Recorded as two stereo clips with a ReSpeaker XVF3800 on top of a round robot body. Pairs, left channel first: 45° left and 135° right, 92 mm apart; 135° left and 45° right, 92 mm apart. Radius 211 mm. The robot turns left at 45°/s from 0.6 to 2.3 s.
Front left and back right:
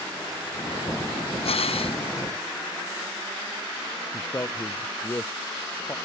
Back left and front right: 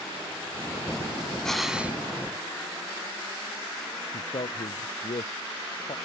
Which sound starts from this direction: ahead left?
Breathing, at 1.4 s.